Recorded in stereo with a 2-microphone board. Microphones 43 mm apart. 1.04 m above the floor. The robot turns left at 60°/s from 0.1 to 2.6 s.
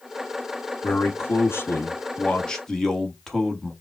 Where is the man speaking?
115° left, 1.2 m; by 3.7 s 10° left, 1.2 m.